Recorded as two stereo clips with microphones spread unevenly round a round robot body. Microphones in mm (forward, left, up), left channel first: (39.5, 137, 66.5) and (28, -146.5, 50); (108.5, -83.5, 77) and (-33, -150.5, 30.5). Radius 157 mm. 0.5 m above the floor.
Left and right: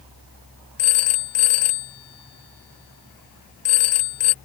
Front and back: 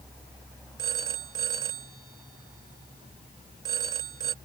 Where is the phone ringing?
130° left.